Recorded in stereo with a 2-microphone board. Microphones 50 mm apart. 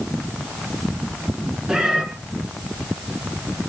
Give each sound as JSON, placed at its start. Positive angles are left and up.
{"t": 1.7, "sound": "a cat meowing", "side_deg": -15, "distance_m": 3.0}